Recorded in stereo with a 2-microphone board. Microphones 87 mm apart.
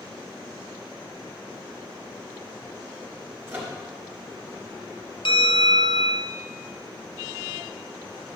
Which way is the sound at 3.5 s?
25° right (ahead or behind).